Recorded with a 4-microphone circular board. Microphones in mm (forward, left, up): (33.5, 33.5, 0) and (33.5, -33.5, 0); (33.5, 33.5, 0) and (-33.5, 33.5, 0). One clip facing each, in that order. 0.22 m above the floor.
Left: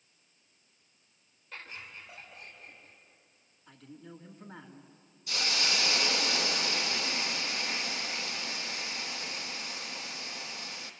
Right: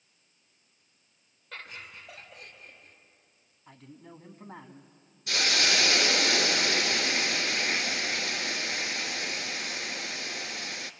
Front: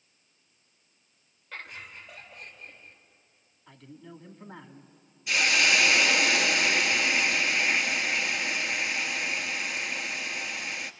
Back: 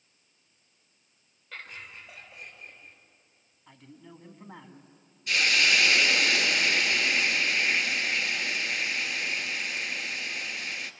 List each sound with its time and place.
1.5 s laughter: 85° right, 4 m; by 3.0 s 100° right, 5 m
3.7 s a man speaking: 100° right, 2.0 m
5.3 s a hiss: 85° right, 1.0 m